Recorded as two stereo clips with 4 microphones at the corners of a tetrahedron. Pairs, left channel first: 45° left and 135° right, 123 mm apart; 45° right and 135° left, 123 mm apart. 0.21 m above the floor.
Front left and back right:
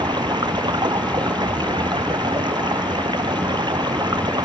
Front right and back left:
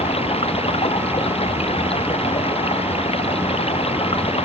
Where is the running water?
80° right.